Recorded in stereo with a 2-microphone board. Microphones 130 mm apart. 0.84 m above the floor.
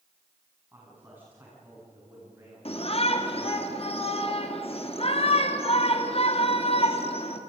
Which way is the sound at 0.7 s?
15° right (ahead or behind).